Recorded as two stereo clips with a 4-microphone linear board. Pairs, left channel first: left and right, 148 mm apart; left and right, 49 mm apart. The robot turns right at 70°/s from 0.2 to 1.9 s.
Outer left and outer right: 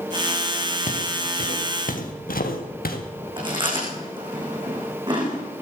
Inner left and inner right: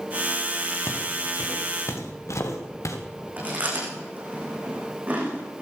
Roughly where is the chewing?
Right.